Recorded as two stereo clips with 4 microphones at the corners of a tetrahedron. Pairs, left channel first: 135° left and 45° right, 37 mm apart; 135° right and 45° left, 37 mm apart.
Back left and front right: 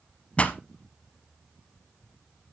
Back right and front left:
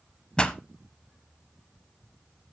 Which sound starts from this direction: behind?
A pop, at 0.4 s.